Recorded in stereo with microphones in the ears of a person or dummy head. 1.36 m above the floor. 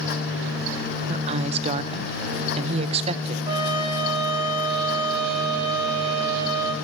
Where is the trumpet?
35° right (ahead or behind), 2.5 m.